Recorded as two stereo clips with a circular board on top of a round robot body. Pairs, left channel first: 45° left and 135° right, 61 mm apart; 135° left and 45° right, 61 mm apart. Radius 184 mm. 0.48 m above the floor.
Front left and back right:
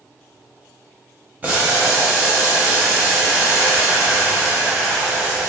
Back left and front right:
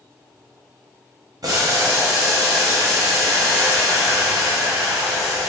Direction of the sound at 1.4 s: 65° right.